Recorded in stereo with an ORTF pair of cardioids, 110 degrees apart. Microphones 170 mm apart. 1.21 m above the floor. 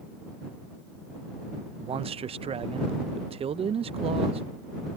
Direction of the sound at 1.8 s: 35° right.